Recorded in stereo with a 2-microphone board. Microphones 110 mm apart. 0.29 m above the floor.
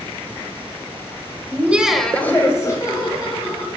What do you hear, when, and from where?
1.5 s laughter: 20° right (ahead or behind), 1.3 m; by 3.7 s 40° left (ahead or behind), 2.5 m